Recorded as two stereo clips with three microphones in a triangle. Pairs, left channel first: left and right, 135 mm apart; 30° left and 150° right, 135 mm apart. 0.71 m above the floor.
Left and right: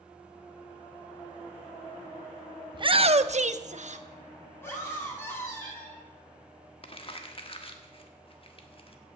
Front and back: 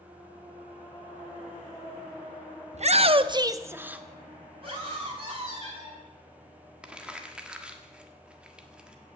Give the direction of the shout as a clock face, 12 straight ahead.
5 o'clock.